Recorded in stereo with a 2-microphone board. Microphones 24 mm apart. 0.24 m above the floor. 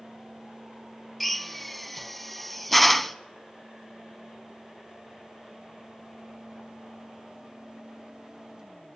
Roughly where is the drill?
Centre.